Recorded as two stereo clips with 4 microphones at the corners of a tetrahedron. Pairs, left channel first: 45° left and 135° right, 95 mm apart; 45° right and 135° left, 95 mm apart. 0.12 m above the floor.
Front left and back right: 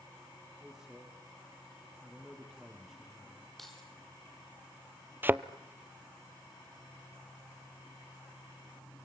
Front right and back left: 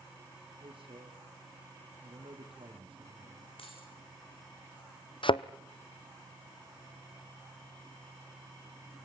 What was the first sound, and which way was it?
A man speaking, 140° left.